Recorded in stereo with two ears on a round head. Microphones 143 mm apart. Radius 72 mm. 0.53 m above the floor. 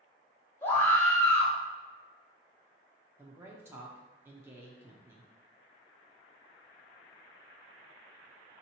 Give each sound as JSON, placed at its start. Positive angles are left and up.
{"t": 0.6, "sound": "a scream", "side_deg": 15, "distance_m": 0.9}
{"t": 3.2, "sound": "a woman speaking", "side_deg": -15, "distance_m": 0.6}